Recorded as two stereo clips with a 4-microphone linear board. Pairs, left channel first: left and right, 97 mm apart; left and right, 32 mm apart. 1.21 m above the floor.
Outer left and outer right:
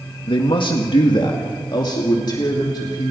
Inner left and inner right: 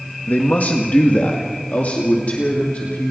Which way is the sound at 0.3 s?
60° left (ahead or behind).